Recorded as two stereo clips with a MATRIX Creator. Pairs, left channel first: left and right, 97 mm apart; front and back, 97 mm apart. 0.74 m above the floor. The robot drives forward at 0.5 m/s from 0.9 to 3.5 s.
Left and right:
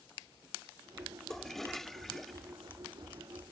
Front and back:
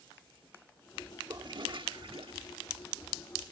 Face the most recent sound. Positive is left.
turn(degrees=180)